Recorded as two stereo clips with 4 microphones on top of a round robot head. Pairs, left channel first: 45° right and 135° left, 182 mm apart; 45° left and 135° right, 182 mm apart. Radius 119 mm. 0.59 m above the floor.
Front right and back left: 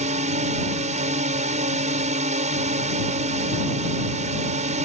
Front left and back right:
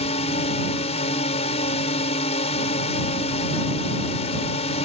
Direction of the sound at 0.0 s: 95° left.